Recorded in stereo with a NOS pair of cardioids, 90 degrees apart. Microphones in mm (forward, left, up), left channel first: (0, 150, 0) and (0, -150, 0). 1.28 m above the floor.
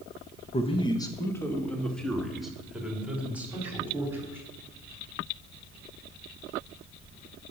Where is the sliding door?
No sliding door in this recording.